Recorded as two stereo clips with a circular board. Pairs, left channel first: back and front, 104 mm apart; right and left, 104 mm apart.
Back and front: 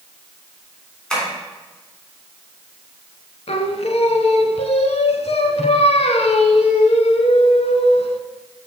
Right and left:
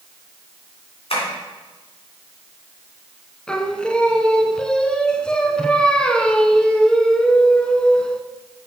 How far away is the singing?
About 0.6 m.